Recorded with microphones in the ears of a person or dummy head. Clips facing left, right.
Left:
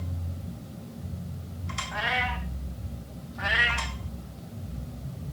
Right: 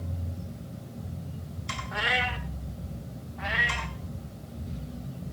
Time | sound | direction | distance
1.9 | a cat meowing | 35° right (ahead or behind) | 1.6 m
3.4 | a cat meowing | 10° left (ahead or behind) | 1.2 m